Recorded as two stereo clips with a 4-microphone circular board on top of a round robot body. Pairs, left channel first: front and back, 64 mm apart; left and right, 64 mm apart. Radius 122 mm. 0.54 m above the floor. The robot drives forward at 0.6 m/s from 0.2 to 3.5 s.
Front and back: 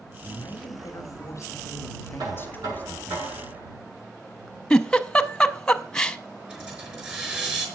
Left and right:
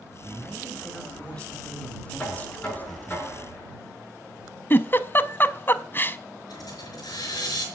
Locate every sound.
0.2 s a man speaking: 15° left, 2.5 m; by 3.2 s 65° left, 1.3 m
2.2 s knocking: 160° left, 7.5 m; by 3.8 s 165° left, 8 m
4.7 s a giggle: 70° left, 0.8 m
6.5 s a hiss: 110° left, 4.5 m